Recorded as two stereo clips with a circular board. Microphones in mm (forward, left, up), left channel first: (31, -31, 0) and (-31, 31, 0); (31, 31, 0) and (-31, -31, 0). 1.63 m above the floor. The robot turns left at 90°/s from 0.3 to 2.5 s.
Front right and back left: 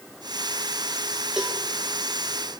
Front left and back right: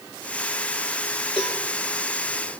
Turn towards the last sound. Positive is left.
turn(degrees=-50)